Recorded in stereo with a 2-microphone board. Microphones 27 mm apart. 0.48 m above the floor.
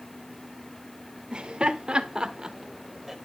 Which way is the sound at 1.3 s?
40° right (ahead or behind).